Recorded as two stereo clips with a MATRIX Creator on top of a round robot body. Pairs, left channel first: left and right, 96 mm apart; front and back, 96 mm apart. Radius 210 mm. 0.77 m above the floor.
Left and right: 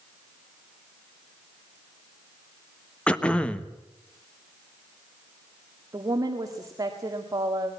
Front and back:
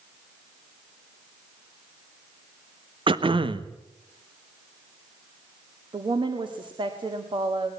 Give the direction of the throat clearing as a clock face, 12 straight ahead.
6 o'clock.